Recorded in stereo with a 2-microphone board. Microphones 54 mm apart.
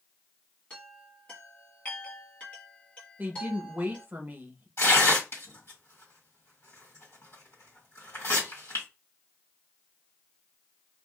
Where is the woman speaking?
35° right (ahead or behind), 0.8 m.